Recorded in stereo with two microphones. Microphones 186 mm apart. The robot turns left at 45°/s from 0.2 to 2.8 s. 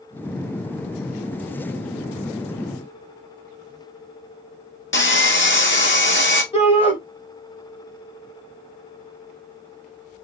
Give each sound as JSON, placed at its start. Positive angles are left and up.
{"t": 4.9, "sound": "sawing", "side_deg": 75, "distance_m": 0.7}
{"t": 6.5, "sound": "a shout", "side_deg": 30, "distance_m": 1.9}